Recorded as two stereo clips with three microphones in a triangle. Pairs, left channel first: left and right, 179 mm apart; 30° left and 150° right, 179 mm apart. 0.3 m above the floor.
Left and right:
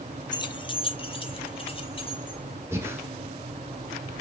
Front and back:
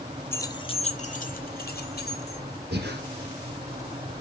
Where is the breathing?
165° right, 1.3 m.